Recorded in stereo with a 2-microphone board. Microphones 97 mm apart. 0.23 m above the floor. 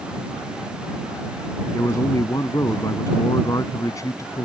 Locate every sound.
1.7 s a man speaking: 35° left (ahead or behind)